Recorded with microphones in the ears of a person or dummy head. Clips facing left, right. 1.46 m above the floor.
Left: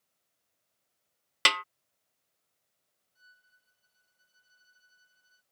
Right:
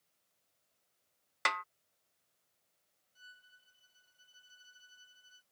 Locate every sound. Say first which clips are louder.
1.4 s a snare drum: left 5 dB; 45° left (ahead or behind)
3.1 s a violin: right 3 dB; 40° right (ahead or behind)